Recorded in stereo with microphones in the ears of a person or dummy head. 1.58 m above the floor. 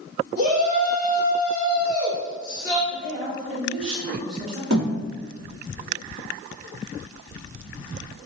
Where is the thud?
65° right (ahead or behind), 1.8 m.